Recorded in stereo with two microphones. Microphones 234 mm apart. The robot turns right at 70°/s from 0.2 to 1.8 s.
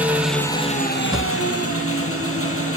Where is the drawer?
20° right (ahead or behind), 0.7 m; by 1.3 s 25° right (ahead or behind), 0.7 m.